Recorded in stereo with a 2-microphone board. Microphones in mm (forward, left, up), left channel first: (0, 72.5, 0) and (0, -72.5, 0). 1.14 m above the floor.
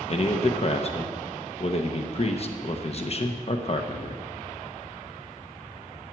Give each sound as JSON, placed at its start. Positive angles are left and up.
{"t": 0.1, "sound": "a man speaking", "side_deg": 45, "distance_m": 0.8}